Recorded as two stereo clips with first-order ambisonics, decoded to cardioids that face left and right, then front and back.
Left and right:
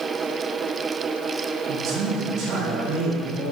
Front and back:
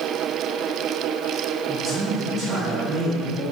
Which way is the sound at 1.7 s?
100° right.